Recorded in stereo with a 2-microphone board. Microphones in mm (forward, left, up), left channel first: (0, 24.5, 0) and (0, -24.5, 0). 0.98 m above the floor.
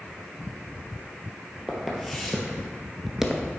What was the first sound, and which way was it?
Footsteps, 10° left (ahead or behind).